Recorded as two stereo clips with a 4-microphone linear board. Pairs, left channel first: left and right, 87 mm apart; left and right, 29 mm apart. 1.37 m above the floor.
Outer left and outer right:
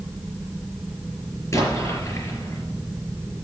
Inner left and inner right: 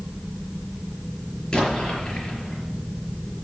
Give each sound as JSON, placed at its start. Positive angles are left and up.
{"t": 1.5, "sound": "an explosion", "side_deg": 35, "distance_m": 4.5}